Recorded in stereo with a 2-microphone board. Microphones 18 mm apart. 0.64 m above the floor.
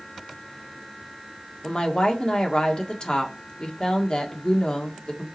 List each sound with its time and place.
1.6 s a woman speaking: 50° left (ahead or behind), 1.7 m